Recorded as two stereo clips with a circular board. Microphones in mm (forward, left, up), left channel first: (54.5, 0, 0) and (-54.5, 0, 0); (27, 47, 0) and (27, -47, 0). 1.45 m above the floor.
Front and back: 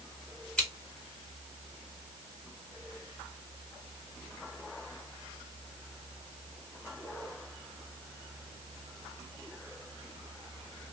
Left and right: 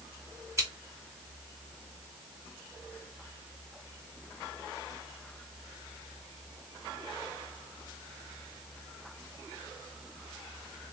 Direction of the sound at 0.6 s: 75° right.